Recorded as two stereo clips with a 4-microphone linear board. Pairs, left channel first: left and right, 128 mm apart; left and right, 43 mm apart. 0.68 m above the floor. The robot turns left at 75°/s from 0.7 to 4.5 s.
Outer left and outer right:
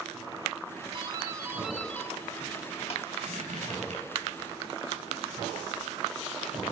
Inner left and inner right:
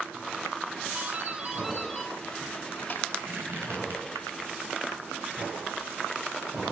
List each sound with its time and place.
0.9 s a doorbell: 120° right, 2.5 m; by 3.1 s 80° left, 2.5 m
3.2 s a squeak: 55° right (ahead or behind), 3 m; by 4.0 s 60° right (ahead or behind), 3 m